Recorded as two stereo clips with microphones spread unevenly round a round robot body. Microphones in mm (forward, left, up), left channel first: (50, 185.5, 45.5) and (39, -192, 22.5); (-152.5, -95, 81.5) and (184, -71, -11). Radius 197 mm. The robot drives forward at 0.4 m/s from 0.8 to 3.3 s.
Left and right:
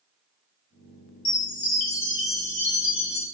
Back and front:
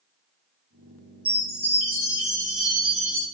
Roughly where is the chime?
Left.